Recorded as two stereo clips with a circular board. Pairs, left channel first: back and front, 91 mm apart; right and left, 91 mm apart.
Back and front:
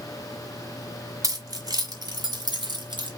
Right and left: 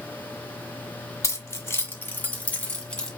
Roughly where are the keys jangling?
Ahead right.